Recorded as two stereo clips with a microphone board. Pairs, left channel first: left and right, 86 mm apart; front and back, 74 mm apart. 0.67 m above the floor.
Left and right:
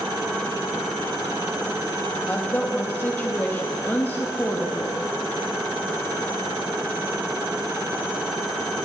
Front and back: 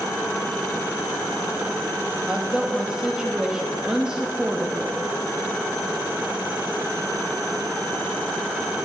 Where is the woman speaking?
115° left, 0.7 m.